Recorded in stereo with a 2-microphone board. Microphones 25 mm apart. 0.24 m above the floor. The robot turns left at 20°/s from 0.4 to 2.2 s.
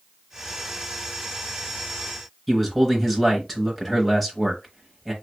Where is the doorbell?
I don't hear a doorbell.